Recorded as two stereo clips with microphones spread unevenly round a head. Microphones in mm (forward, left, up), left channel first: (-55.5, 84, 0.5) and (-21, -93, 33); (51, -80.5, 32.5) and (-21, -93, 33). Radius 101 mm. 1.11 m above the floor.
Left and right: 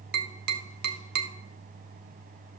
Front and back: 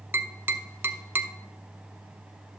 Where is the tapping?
110° right, 0.9 m.